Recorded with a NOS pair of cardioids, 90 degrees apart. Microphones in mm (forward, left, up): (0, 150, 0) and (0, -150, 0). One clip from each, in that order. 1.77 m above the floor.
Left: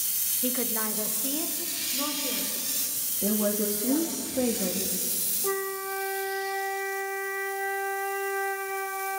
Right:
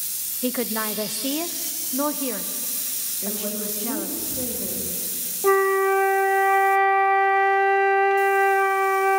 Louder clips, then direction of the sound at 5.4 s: Right 14 dB; 50° right.